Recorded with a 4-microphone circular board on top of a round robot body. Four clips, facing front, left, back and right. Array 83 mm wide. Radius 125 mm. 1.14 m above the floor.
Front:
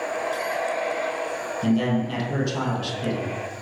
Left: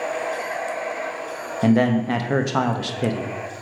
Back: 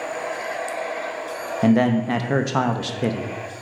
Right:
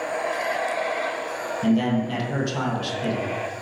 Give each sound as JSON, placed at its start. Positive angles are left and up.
{"t": 1.6, "sound": "a man speaking", "azimuth_deg": 140, "distance_m": 1.1}